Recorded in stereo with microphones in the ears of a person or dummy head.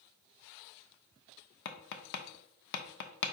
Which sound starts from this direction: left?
Tapping, at 1.6 s.